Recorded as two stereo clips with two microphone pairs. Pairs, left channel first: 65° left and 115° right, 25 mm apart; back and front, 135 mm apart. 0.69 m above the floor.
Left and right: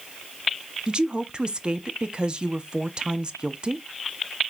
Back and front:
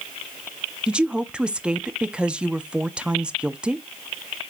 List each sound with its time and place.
0.9 s a woman speaking: 75° right, 0.6 m